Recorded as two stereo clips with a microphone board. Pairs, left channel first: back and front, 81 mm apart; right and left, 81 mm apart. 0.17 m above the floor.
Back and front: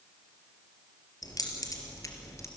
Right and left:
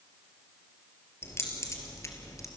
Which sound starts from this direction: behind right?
Keys jangling, at 1.2 s.